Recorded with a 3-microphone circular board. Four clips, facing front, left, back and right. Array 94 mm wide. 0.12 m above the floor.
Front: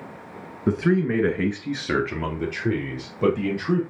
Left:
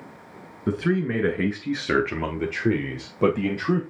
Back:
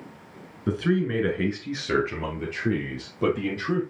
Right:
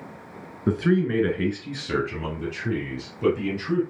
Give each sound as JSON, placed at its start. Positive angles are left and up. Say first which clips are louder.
{"t": 0.7, "sound": "a man speaking", "louder": "right 2 dB, front 3 dB", "azimuth_deg": -15, "distance_m": 1.4}